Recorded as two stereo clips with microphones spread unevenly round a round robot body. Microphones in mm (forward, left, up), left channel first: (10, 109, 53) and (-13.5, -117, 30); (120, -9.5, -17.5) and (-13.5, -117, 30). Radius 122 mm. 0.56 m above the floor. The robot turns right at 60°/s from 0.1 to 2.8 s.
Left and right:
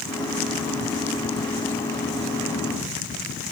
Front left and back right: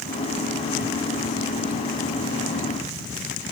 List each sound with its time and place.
Only background noise.